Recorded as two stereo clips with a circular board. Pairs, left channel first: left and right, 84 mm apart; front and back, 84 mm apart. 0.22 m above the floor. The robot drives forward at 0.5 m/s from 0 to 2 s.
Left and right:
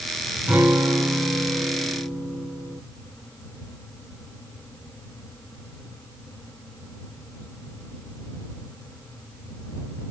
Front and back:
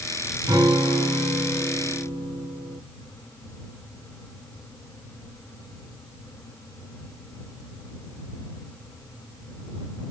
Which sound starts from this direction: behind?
A guitar, at 0.5 s.